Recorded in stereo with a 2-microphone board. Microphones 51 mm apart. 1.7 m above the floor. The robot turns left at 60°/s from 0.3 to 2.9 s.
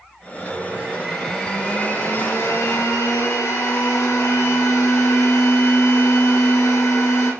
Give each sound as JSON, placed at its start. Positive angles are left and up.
{"t": 0.3, "sound": "a blender", "azimuth_deg": -130, "distance_m": 5.5}